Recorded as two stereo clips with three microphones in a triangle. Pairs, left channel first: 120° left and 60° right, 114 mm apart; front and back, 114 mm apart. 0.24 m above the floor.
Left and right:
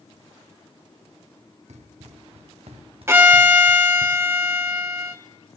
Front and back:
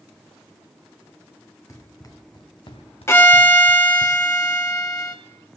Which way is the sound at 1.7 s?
65° right.